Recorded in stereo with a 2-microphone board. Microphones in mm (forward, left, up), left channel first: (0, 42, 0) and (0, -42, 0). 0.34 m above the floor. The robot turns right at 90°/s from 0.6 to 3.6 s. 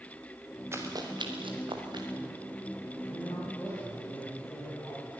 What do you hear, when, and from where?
0.7 s running footsteps: 30° right (ahead or behind), 3.5 m; by 2.1 s 55° right (ahead or behind), 3 m
3.0 s a man speaking: 100° left, 9 m; by 5.1 s 150° left, 9 m